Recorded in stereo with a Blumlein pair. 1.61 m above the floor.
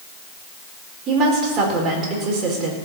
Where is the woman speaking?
30° right, 4.5 m.